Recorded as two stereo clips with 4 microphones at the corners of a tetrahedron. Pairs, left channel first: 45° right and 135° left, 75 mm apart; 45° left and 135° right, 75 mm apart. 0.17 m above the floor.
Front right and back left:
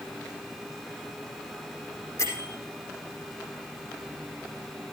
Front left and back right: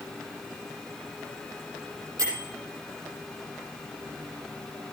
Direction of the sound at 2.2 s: 95° right.